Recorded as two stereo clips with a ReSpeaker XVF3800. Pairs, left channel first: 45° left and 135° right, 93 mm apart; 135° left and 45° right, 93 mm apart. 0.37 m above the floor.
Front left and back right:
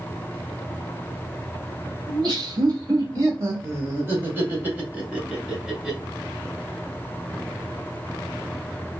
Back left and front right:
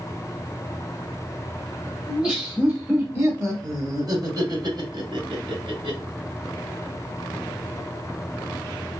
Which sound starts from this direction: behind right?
Laughter, at 2.1 s.